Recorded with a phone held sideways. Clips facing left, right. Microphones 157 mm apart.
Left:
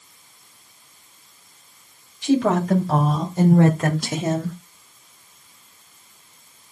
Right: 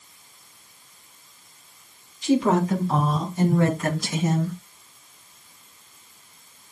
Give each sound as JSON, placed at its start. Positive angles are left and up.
{"t": 2.2, "sound": "a woman speaking", "side_deg": 75, "distance_m": 5.5}